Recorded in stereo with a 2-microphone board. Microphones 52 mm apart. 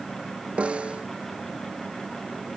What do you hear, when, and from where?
0.6 s a snare drum: 20° right (ahead or behind)